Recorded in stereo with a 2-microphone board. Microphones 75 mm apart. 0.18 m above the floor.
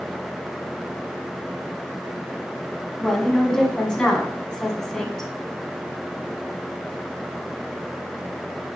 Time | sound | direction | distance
3.0 | a woman speaking | 10° left (ahead or behind) | 1.6 m